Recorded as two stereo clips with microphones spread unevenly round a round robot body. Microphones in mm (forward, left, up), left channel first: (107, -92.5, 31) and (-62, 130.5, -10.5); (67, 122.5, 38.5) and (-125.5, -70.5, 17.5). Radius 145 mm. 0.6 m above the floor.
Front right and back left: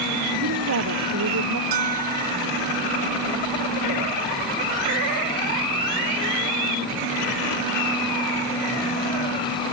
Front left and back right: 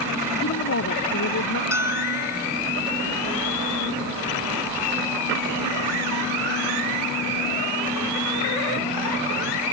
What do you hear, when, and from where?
0.4 s a woman speaking: 90° left
1.7 s a bell: 145° left